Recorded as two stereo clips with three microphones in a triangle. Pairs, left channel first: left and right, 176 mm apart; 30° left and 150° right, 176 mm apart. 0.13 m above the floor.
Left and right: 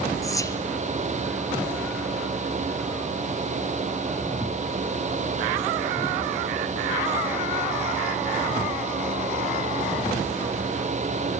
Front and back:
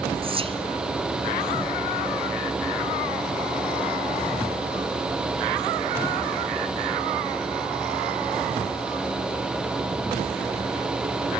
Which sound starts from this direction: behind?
Whispering, at 0.2 s.